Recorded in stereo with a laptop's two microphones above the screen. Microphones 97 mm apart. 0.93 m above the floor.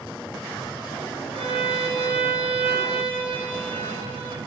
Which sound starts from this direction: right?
A violin, at 1.3 s.